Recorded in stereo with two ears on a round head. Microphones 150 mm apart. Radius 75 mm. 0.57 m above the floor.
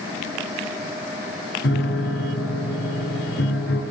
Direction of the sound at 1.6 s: 80° left.